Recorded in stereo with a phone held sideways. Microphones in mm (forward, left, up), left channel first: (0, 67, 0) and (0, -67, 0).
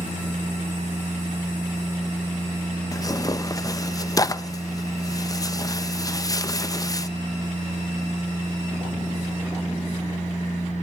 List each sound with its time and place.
0.0 s a machine running: 65° left (ahead or behind), 5 m
2.9 s tearing paper: 25° left (ahead or behind), 0.8 m